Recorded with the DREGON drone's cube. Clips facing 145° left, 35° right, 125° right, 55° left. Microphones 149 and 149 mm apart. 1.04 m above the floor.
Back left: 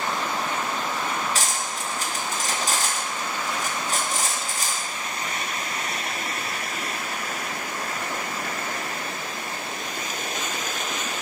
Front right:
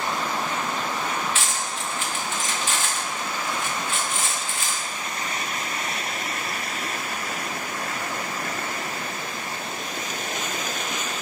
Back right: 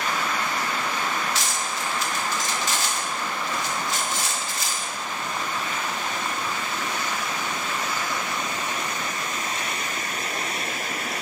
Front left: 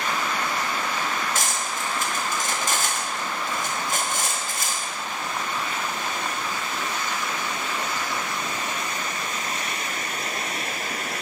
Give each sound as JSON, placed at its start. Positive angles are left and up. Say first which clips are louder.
{"t": 1.4, "sound": "cutlery clinking", "louder": "back left 1 dB, even", "azimuth_deg": 95, "distance_m": 0.8}